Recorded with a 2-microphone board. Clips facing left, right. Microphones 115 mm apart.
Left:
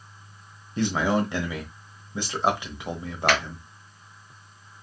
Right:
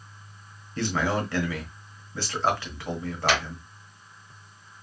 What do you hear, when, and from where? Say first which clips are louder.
0.8 s a man speaking: left 3 dB; 20° left (ahead or behind), 1.0 m
3.3 s a finger snap: left 1 dB; 60° left (ahead or behind), 2.0 m